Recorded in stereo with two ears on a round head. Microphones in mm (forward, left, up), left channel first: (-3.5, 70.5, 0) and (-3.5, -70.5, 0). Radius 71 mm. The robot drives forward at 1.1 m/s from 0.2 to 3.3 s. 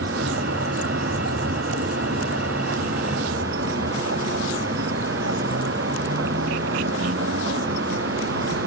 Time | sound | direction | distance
0.0 | a vehicle | 85° right | ?